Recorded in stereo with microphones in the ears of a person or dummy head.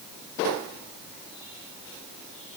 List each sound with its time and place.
Only background noise.